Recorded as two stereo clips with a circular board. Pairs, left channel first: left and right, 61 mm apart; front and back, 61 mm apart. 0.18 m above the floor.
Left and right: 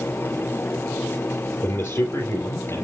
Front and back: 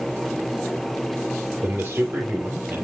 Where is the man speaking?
120° left, 3.5 m.